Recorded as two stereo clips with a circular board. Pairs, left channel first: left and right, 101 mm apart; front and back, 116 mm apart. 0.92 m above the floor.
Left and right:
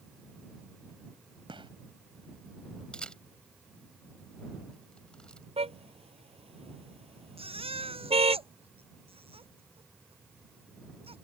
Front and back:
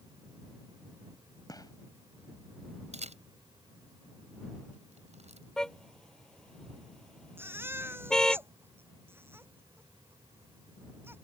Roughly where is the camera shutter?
Behind.